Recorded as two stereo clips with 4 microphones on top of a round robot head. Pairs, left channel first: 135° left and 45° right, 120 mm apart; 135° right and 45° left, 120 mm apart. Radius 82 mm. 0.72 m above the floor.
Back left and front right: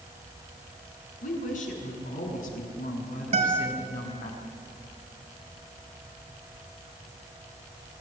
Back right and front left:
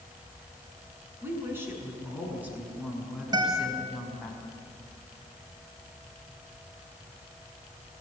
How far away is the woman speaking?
About 7.5 m.